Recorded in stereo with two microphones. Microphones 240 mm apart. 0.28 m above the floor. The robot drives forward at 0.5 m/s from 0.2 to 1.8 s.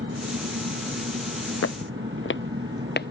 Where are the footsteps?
70° left (ahead or behind); by 3.1 s 45° left (ahead or behind).